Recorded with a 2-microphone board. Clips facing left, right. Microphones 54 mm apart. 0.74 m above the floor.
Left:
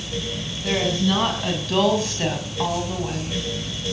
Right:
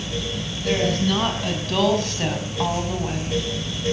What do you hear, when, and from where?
0.6 s a woman speaking: 15° left (ahead or behind), 6 m; by 3.4 s 10° right (ahead or behind), 4.5 m